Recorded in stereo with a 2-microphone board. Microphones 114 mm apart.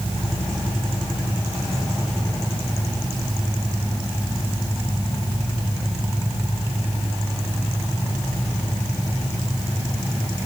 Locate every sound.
Only background noise.